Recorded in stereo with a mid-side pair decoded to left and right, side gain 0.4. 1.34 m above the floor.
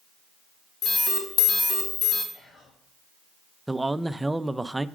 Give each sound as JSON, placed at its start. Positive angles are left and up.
{"t": 0.8, "sound": "an alarm", "azimuth_deg": 60, "distance_m": 2.5}
{"t": 2.3, "sound": "whispering", "azimuth_deg": 60, "distance_m": 2.5}
{"t": 3.7, "sound": "a man speaking", "azimuth_deg": -15, "distance_m": 0.5}